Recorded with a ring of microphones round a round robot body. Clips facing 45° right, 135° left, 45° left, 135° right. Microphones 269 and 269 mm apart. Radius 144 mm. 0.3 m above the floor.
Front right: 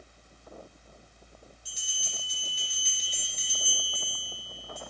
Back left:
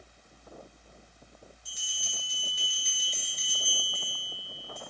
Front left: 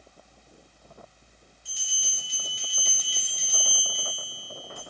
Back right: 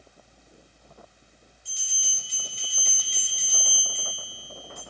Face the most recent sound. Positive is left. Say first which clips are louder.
# front right 1 dB, front left 2 dB
turn(degrees=-35)